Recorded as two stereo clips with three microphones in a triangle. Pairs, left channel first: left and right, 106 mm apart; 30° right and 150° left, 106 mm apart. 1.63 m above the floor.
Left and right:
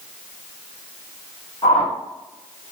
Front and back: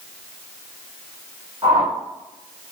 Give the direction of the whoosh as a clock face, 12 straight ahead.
8 o'clock.